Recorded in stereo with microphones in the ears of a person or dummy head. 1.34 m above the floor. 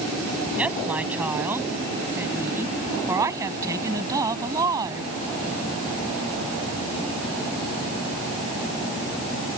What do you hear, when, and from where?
0.6 s a woman speaking: 10° right (ahead or behind); by 5.1 s 20° right (ahead or behind)